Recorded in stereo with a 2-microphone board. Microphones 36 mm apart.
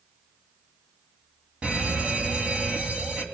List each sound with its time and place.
1.6 s a fire alarm: 25° right (ahead or behind), 2.5 m